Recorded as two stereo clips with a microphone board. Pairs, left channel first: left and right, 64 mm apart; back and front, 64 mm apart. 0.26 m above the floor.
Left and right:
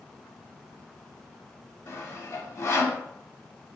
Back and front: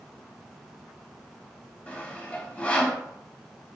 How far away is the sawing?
About 0.5 m.